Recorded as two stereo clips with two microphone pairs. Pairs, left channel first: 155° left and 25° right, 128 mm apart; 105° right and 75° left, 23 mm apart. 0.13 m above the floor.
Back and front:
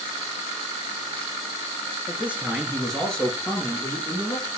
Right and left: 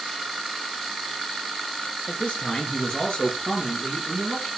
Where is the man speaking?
95° right, 2 m; by 4.5 s 155° right, 2.5 m.